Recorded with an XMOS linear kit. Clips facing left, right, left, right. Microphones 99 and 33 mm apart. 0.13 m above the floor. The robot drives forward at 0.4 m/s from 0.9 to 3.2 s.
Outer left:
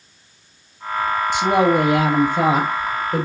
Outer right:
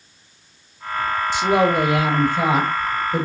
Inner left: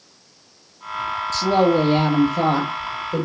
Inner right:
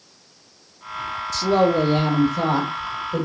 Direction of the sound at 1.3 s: 60° left (ahead or behind).